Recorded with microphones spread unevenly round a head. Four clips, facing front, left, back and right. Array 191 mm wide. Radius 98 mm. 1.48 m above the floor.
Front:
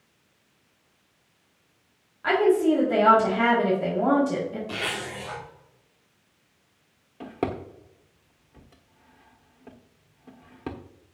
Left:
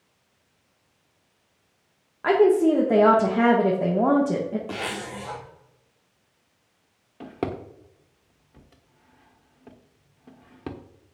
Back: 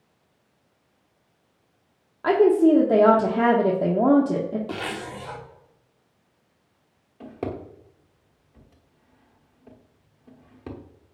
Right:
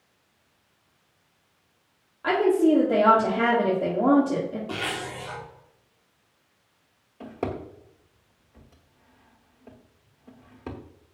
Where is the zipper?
145° left, 2.5 m.